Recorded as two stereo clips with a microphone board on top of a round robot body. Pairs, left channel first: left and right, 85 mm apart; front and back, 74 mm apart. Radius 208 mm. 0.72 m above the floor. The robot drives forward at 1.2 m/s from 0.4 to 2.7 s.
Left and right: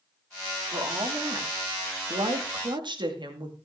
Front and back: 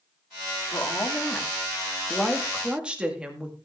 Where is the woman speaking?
45° right, 3 m; by 3.5 s 105° right, 2 m.